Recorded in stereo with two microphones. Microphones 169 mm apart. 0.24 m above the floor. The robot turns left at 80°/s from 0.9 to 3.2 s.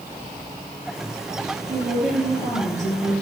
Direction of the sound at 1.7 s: 145° right.